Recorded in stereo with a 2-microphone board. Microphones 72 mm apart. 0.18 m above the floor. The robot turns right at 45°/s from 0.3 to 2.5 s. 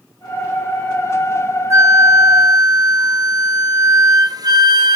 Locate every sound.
1.7 s a flute: 130° right, 1.6 m; by 5.0 s 95° right, 1.6 m